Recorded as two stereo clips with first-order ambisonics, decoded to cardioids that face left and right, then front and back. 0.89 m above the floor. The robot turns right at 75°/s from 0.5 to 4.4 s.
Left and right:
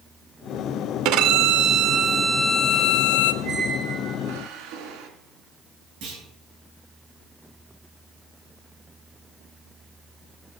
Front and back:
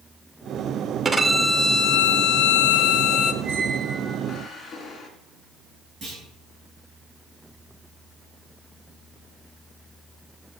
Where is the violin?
105° right, 0.7 m; by 3.3 s 65° left, 0.7 m.